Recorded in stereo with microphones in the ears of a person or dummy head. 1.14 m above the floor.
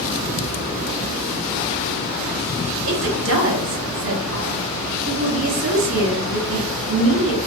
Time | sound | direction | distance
2.9 | a woman speaking | 60° right (ahead or behind) | 0.7 m